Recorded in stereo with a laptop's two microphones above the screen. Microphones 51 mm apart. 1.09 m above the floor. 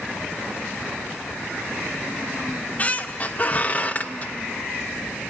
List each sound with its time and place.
2.5 s a squeak: 30° left (ahead or behind), 0.6 m